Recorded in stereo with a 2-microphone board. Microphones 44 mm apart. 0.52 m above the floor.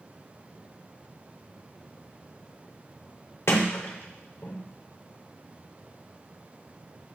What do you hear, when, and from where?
3.5 s a sliding door: 70° left (ahead or behind), 0.7 m